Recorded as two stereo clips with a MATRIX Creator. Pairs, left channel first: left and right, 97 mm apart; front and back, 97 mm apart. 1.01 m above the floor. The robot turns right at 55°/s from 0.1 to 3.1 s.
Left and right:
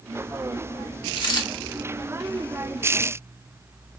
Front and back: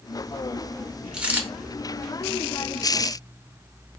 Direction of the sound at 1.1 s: 100° left.